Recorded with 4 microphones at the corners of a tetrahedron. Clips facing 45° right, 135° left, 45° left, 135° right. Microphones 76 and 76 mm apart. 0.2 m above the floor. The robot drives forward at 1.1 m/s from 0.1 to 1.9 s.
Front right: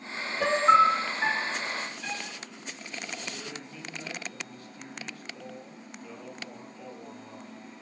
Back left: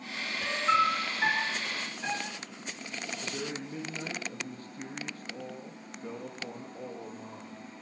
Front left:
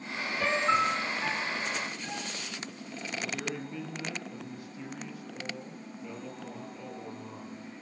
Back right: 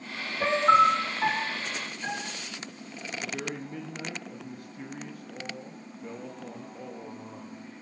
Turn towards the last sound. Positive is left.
turn(degrees=-175)